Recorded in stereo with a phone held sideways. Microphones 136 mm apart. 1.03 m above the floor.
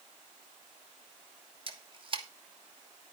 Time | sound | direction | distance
1.7 | a camera shutter | 40° right (ahead or behind) | 1.3 m